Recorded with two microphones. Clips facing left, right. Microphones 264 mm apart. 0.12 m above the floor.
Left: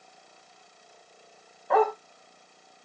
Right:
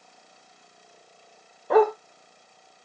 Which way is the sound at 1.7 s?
40° right (ahead or behind).